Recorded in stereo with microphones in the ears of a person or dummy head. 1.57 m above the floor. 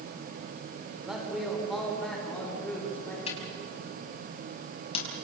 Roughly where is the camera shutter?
Left.